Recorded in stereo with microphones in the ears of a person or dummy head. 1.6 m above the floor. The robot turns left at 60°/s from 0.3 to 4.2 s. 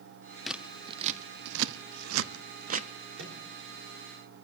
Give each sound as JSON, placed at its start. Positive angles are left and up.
{"t": 0.5, "sound": "scissors", "side_deg": 0, "distance_m": 0.6}
{"t": 3.2, "sound": "a microwave", "side_deg": -80, "distance_m": 4.0}